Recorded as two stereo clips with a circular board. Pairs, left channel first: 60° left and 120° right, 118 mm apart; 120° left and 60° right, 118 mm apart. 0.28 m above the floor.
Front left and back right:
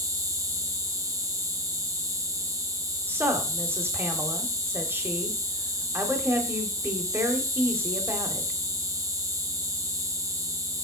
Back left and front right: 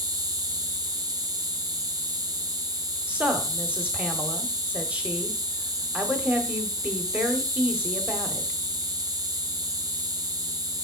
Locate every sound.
0.0 s an insect: 85° right, 0.8 m
3.1 s a woman speaking: 115° right, 1.0 m